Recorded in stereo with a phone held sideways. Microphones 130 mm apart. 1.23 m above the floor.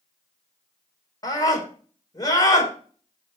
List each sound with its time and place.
1.2 s a scream: 30° left (ahead or behind), 4 m